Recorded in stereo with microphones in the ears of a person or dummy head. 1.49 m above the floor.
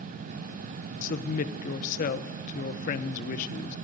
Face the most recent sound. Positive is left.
turn(degrees=45)  # may be behind; listen again after turning